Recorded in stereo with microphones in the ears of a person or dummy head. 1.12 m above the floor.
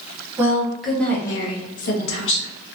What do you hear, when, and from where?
0.4 s a woman speaking: 10° right (ahead or behind), 1.1 m; by 2.5 s 65° left (ahead or behind), 0.9 m